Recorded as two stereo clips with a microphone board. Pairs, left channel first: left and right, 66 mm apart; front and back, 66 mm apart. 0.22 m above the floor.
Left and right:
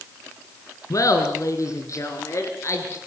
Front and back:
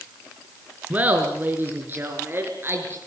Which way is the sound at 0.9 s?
120° left.